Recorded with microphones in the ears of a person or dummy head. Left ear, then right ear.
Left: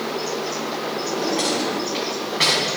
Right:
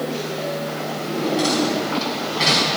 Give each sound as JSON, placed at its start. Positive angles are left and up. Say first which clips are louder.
{"t": 1.0, "sound": "a drawer", "louder": "right 2 dB", "side_deg": 30, "distance_m": 4.5}